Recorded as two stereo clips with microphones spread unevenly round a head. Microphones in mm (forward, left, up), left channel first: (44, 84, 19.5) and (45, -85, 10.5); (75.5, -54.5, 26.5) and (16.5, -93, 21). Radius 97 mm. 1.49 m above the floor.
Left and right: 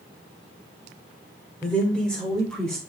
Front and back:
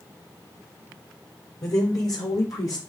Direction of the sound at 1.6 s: 5° left.